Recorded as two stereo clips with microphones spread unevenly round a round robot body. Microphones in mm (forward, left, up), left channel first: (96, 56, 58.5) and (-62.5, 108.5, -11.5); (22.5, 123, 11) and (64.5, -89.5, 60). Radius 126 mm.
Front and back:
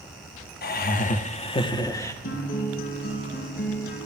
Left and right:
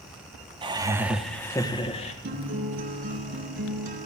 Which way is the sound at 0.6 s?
10° right.